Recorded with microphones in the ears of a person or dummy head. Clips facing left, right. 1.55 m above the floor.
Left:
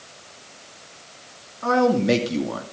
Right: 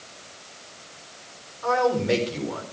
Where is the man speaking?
70° left (ahead or behind), 3 m; by 2.6 s 75° left (ahead or behind), 2.5 m.